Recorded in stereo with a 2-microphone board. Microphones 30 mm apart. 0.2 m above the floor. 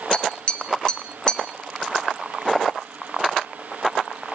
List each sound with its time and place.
0.1 s tapping: 35° left (ahead or behind), 1.5 m